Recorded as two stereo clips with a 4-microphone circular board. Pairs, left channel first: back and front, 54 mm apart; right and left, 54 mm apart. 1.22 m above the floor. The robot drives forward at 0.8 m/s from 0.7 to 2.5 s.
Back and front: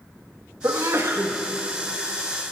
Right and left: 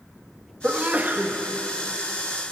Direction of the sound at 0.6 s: 30° left.